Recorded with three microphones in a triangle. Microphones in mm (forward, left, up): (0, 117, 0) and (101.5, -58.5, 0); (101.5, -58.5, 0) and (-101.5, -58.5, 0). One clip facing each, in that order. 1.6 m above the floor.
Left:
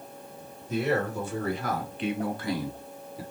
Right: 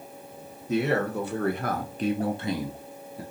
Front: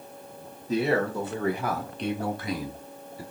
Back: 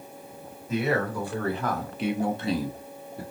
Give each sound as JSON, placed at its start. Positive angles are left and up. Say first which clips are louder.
{"t": 0.7, "sound": "a man speaking", "louder": "right 2 dB, front 2 dB", "azimuth_deg": -55, "distance_m": 1.2}